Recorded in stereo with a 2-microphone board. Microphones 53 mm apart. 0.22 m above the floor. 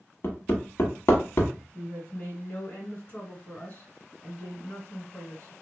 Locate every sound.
0.2 s hammering: 50° left (ahead or behind), 0.8 m
1.7 s a woman speaking: 20° left (ahead or behind), 1.8 m